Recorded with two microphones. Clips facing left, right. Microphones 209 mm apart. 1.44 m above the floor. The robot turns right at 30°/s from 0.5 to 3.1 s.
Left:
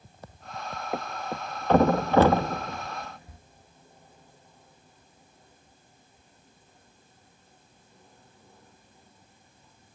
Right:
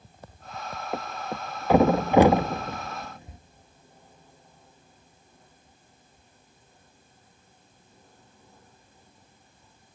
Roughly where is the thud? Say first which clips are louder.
Even; centre.